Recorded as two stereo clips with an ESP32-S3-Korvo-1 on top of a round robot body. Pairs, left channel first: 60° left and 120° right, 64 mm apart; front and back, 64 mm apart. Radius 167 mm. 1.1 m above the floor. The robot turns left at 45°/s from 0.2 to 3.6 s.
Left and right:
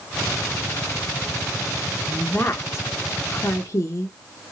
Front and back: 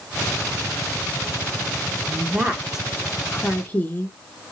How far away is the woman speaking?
About 0.9 m.